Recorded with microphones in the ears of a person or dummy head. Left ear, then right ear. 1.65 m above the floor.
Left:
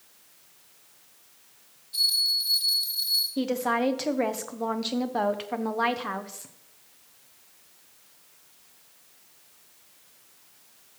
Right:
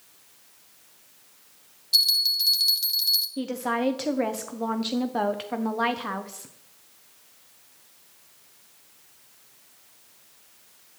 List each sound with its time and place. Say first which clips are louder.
1.9 s a bell: right 3 dB; 75° right (ahead or behind), 0.9 m
3.4 s a woman speaking: left 2 dB; 5° left (ahead or behind), 0.5 m